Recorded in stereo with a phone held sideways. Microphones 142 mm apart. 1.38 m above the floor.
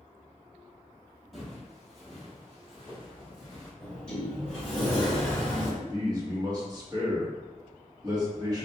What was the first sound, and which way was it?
Footsteps, centre (ahead or behind).